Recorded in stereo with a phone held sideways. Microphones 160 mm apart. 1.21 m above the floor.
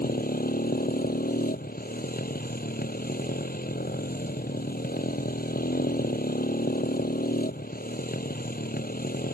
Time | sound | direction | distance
0.0 | a motorcycle | 60° left (ahead or behind) | ?